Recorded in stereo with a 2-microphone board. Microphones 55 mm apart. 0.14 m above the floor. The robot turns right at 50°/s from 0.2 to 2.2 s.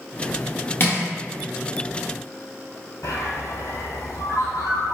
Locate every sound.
0.8 s crushing: 45° left (ahead or behind), 1.3 m; by 1.0 s 50° left (ahead or behind), 1.3 m
3.0 s a bird: 75° left (ahead or behind), 0.9 m